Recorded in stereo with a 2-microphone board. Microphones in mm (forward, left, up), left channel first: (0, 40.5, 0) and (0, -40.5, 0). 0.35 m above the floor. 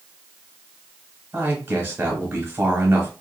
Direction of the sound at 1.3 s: 20° right (ahead or behind).